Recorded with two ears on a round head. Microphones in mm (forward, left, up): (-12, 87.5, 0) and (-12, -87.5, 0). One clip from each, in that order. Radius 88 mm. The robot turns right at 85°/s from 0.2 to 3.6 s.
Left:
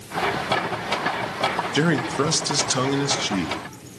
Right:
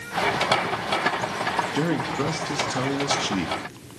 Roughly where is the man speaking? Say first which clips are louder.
Left 3 dB; ahead left.